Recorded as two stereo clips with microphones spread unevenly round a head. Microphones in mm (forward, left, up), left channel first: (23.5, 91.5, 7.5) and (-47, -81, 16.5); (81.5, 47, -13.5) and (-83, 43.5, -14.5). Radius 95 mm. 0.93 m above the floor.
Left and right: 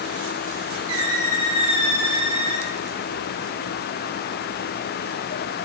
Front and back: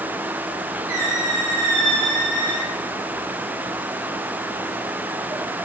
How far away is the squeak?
About 3 m.